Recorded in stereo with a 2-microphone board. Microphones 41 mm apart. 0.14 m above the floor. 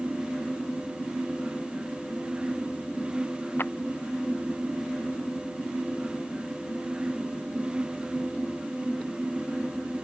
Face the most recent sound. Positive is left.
turn(degrees=55)  # may be behind; listen again after turning